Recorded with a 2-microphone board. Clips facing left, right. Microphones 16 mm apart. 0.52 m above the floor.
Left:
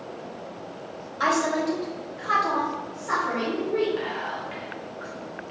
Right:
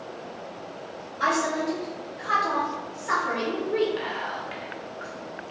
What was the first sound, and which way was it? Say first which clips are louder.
A woman speaking: left 1 dB; 45° left (ahead or behind).